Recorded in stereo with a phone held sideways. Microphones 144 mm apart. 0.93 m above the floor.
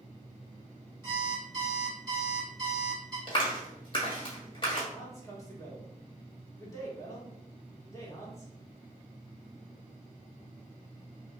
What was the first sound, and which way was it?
An alarm clock, 30° right (ahead or behind).